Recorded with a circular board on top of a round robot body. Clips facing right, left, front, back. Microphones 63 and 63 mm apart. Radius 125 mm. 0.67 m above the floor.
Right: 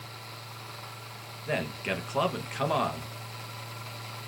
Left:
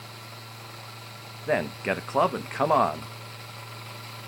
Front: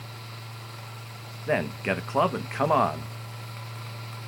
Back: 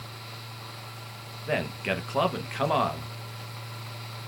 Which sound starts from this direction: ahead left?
A man speaking, at 1.5 s.